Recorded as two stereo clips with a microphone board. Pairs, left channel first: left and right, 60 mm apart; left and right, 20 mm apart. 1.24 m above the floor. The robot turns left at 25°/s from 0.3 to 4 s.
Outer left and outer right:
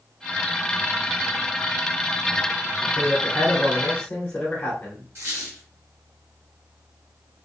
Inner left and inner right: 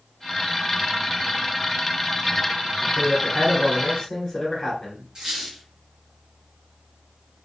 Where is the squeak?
40° right (ahead or behind), 1.0 m.